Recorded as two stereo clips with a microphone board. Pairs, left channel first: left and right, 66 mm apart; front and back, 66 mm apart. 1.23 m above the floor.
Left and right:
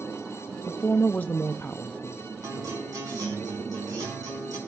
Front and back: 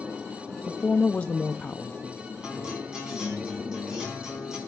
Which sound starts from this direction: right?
A guitar, at 2.4 s.